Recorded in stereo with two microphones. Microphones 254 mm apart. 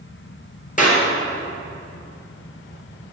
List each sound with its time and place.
0.8 s a clap: 30° left (ahead or behind), 1.8 m